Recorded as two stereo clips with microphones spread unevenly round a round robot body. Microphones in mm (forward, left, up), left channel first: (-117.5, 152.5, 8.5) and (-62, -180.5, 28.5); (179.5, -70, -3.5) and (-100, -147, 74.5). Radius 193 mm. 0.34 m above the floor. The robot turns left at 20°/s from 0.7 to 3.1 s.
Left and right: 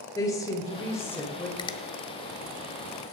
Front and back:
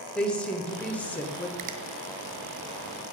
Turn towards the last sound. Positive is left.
turn(degrees=110)